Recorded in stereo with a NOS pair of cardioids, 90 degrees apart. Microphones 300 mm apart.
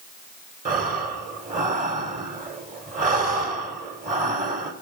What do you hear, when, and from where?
0.7 s breathing: 30° right, 1.8 m